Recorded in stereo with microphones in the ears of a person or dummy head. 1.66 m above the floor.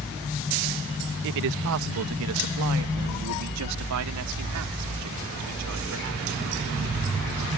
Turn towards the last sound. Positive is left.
turn(degrees=-85)